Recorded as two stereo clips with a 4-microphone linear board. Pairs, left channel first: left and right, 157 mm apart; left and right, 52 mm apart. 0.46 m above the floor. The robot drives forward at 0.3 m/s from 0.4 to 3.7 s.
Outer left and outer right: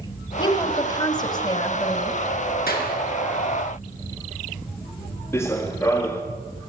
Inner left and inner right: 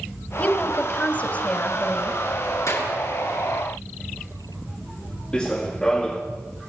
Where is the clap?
75° left (ahead or behind), 6 m; by 3.0 s 70° left (ahead or behind), 6 m.